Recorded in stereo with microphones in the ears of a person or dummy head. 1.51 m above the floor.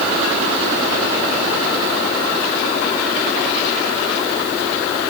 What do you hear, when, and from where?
Only background noise.